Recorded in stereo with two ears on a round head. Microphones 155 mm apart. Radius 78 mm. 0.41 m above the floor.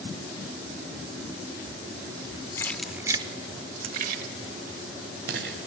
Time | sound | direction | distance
2.6 | keys jangling | 15° left (ahead or behind) | 0.5 m